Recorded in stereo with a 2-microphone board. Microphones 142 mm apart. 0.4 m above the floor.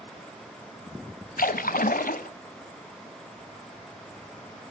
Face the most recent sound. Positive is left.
turn(degrees=85)